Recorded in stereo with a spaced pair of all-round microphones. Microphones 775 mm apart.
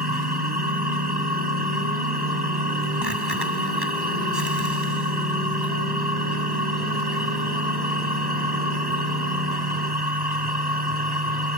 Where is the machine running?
30° right (ahead or behind).